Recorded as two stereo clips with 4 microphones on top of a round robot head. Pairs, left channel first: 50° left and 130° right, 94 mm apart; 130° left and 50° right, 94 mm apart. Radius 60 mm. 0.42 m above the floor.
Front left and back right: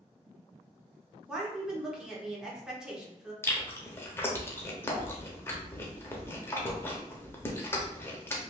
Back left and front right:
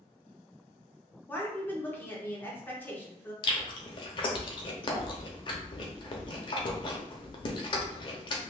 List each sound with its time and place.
1.3 s a woman speaking: 160° left, 1.0 m
3.4 s chewing: 110° left, 0.8 m